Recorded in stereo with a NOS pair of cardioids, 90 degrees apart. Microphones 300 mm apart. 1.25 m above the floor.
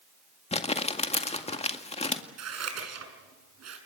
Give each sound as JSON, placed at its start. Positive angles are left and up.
{"t": 0.5, "sound": "crumpling", "azimuth_deg": 20, "distance_m": 1.9}
{"t": 2.4, "sound": "scissors", "azimuth_deg": -55, "distance_m": 6.0}